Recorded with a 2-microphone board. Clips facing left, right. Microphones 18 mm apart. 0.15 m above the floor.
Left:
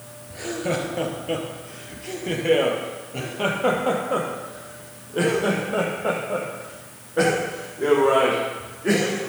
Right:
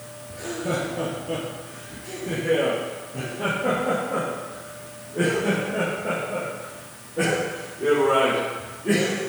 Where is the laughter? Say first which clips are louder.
Left 1 dB; 25° left (ahead or behind), 2 m; by 9.2 s 65° left (ahead or behind), 6 m.